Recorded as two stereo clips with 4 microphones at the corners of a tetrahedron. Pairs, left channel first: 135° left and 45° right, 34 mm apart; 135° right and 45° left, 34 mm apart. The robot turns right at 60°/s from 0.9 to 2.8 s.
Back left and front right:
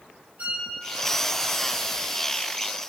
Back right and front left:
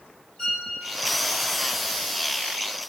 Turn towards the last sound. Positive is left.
turn(degrees=45)